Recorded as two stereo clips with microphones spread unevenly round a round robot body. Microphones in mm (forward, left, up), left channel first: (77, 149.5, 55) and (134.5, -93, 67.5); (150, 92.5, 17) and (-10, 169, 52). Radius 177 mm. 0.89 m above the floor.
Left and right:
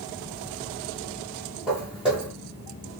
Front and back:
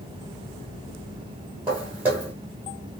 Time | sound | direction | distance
1.7 | footsteps | 155° right | 0.9 m